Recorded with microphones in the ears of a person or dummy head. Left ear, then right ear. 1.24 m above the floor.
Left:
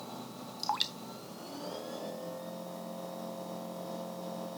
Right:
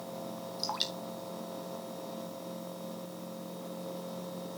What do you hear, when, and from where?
0.6 s dripping: 20° left (ahead or behind), 0.6 m